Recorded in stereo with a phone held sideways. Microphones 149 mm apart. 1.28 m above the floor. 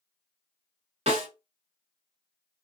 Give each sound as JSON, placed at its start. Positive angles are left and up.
{"t": 1.1, "sound": "a snare drum", "side_deg": -45, "distance_m": 1.3}